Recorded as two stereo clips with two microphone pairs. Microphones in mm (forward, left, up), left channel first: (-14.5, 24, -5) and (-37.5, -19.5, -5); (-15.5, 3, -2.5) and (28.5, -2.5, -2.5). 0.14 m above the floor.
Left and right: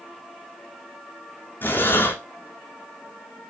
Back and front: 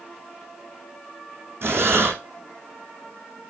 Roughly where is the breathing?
Ahead.